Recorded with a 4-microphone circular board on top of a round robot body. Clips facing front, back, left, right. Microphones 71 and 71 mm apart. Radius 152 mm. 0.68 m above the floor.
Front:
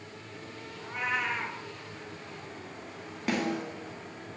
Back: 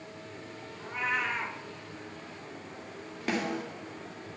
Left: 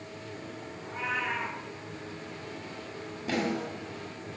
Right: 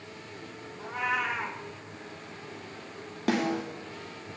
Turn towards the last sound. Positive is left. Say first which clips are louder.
# front 1 dB, right 3 dB
turn(degrees=-90)